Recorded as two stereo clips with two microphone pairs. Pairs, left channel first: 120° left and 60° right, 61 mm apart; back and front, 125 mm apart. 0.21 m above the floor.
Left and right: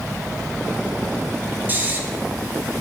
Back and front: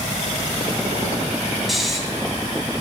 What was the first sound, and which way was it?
Snoring, 90° right.